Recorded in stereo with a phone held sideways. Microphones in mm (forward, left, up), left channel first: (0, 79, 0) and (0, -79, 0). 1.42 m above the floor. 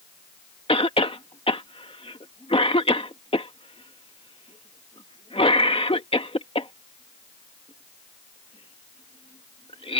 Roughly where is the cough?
Left.